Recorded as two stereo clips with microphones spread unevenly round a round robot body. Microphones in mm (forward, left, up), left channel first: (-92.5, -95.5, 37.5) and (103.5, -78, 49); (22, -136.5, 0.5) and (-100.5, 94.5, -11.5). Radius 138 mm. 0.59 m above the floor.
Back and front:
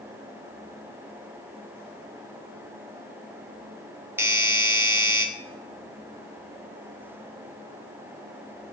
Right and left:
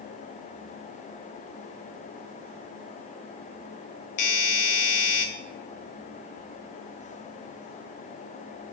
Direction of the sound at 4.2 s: 75° right.